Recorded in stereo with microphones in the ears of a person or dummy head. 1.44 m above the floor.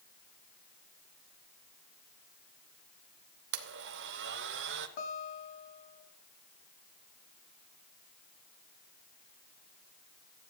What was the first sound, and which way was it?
A blender, 70° right (ahead or behind).